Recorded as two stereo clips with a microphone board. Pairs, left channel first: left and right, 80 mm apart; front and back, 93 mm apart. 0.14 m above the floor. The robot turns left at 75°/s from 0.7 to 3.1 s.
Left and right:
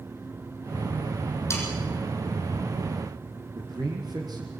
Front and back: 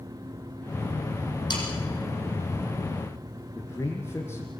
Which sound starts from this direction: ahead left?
Sawing, at 1.5 s.